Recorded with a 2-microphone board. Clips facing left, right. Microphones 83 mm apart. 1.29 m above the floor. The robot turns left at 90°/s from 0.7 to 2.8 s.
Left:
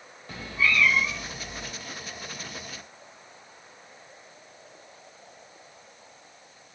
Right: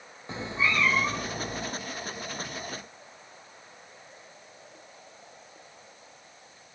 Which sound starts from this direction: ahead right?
A cat meowing, at 0.3 s.